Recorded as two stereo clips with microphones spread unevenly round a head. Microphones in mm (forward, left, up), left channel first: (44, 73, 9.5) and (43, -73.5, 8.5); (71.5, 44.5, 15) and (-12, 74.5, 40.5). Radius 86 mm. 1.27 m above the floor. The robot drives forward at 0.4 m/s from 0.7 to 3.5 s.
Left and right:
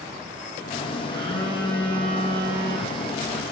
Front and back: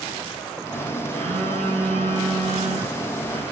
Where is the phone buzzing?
165° right, 8.5 m.